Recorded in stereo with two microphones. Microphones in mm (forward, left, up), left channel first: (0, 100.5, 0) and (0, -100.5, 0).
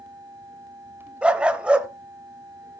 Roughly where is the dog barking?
Centre.